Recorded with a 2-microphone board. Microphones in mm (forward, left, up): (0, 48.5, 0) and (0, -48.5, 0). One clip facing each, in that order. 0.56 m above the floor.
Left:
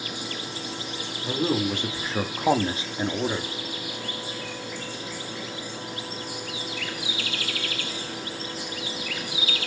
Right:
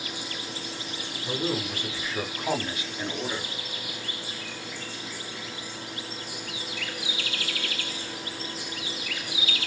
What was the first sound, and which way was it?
A man speaking, 25° left (ahead or behind).